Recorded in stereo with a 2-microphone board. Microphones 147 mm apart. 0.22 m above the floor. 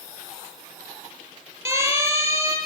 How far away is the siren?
About 9.5 m.